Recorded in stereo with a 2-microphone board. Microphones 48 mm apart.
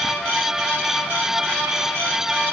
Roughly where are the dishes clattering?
No dishes clattering in this recording.